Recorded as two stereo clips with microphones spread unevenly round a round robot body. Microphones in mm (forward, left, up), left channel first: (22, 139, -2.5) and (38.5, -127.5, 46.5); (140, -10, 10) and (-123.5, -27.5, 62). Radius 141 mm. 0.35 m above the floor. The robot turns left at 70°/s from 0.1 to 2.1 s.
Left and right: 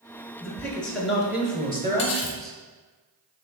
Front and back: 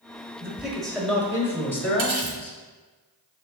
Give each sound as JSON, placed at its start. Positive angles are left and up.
{"t": 0.4, "sound": "a man speaking", "azimuth_deg": 80, "distance_m": 1.2}
{"t": 2.0, "sound": "cutlery clinking", "azimuth_deg": 140, "distance_m": 1.5}